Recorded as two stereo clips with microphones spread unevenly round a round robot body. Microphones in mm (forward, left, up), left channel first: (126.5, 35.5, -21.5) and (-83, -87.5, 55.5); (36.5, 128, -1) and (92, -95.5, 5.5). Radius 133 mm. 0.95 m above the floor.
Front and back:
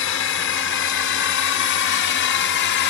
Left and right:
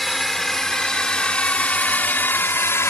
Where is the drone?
15° left; by 2.9 s 25° left.